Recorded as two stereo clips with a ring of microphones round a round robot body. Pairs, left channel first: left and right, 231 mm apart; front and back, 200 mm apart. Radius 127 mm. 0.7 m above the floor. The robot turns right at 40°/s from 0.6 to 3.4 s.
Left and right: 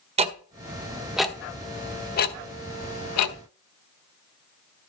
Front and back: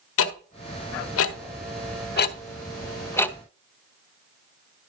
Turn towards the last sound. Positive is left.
turn(degrees=85)